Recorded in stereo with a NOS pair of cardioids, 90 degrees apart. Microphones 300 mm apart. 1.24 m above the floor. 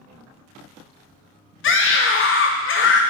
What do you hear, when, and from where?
1.6 s a scream: 40° left, 0.6 m